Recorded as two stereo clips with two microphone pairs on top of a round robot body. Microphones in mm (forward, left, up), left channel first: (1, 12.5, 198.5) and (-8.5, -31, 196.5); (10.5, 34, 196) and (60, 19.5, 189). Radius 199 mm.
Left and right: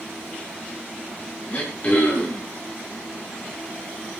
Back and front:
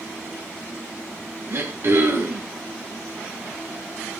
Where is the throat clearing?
15° left, 6 m.